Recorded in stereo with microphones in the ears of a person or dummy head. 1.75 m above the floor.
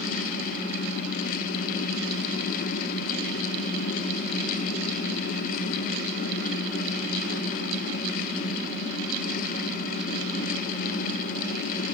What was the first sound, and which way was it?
Only background noise.